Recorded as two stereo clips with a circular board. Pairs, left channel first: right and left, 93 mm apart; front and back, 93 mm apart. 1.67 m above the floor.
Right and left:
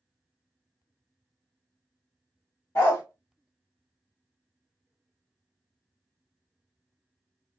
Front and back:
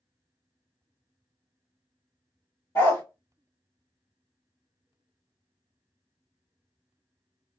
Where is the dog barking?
45° right, 1.5 m.